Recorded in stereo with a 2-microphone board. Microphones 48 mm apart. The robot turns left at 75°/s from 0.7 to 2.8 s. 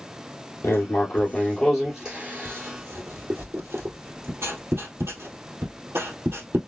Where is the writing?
80° left, 2 m; by 6.6 s 70° right (ahead or behind), 2 m.